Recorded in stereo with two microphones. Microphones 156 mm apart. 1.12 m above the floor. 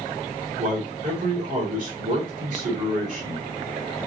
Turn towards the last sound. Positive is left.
turn(degrees=-55)  # may be behind; listen again after turning